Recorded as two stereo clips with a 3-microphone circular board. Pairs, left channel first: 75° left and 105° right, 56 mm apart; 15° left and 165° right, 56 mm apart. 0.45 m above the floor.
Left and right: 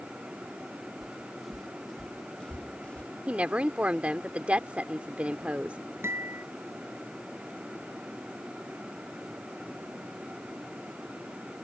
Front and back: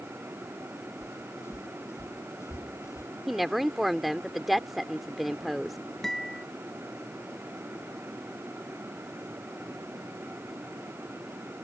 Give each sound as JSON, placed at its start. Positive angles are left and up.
{"t": 1.0, "sound": "footsteps", "azimuth_deg": -20}
{"t": 3.3, "sound": "a woman speaking", "azimuth_deg": -75}
{"t": 6.0, "sound": "a guitar", "azimuth_deg": -65}